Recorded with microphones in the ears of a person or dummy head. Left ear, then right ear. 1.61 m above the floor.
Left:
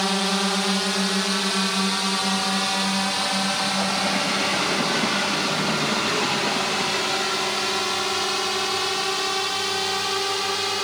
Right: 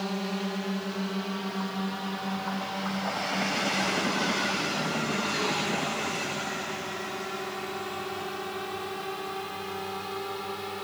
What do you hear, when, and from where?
0.0 s a drone: 60° left (ahead or behind); by 10.8 s 75° left (ahead or behind)